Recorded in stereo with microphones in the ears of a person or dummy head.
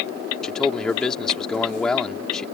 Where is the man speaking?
10° left (ahead or behind).